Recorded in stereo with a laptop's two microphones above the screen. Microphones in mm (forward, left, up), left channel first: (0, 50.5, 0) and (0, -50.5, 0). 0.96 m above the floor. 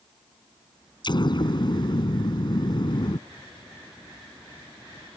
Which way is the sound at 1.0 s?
50° left (ahead or behind).